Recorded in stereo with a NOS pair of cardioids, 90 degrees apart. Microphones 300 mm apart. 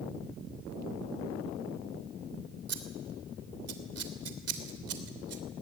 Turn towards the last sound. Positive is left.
turn(degrees=-55)